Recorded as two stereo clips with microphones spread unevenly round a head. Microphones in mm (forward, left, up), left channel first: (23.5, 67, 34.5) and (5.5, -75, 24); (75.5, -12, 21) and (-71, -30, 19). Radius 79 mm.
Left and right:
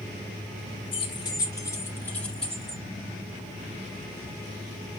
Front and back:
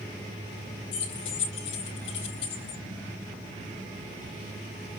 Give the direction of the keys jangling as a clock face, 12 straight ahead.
11 o'clock.